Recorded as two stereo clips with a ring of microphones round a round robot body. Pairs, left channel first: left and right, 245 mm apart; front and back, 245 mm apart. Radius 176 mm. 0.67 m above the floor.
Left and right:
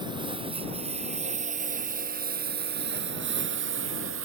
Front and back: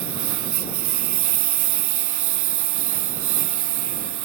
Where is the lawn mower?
170° right; by 4.2 s 145° right.